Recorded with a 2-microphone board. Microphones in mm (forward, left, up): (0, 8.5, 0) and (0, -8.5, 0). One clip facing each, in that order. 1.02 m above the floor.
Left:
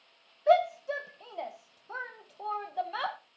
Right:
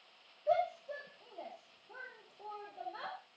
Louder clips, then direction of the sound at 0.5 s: Left 9 dB; 70° left (ahead or behind).